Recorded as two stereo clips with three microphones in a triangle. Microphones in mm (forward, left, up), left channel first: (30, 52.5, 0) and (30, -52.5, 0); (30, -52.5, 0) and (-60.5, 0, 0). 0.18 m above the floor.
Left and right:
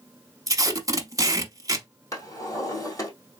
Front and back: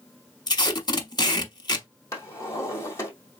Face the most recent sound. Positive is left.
turn(degrees=30)